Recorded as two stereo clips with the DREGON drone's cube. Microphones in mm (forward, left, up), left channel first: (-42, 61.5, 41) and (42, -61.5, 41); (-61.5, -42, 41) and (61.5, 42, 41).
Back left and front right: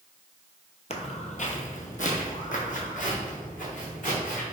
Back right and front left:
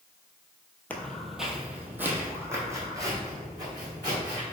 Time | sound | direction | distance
0.9 | footsteps | 140° left | 0.6 m